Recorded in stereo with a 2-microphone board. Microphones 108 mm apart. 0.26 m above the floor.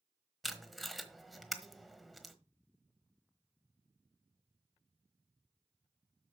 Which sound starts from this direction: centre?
Tape being pulled, at 0.4 s.